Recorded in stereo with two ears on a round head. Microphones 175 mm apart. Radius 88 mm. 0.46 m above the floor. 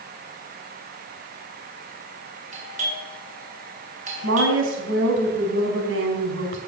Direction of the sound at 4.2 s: 75° right (ahead or behind).